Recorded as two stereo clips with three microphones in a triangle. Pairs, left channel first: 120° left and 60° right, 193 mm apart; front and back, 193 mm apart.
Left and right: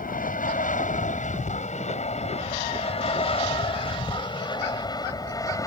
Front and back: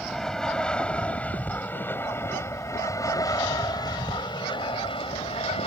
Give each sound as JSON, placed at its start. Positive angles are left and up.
{"t": 0.0, "sound": "an aircraft", "azimuth_deg": 90}